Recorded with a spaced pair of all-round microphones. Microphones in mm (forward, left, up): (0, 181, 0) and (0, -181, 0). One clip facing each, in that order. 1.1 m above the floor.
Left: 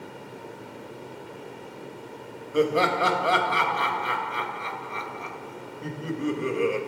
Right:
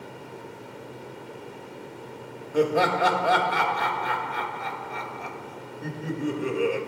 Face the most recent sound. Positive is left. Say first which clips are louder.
# even
turn(degrees=5)  # may be behind; listen again after turning